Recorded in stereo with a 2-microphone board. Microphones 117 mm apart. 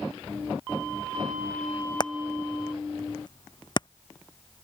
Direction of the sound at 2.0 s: 40° left (ahead or behind).